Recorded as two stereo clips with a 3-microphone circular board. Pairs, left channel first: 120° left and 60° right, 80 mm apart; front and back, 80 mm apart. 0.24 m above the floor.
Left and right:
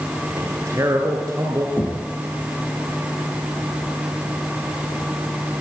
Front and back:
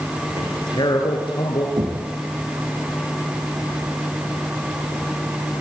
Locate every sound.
0.4 s a man speaking: 15° right, 3.5 m
1.8 s knocking: straight behind, 8 m